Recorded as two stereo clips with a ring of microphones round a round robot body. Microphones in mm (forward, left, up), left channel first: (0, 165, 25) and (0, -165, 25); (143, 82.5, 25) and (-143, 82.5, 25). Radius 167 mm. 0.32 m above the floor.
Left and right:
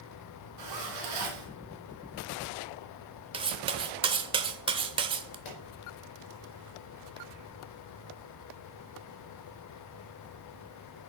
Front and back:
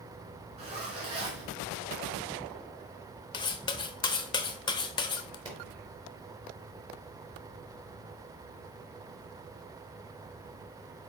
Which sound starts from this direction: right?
A zipper, at 0.6 s.